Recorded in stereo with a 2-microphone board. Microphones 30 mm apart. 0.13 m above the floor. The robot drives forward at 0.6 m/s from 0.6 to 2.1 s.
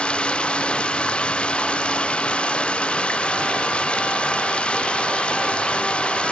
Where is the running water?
35° left (ahead or behind).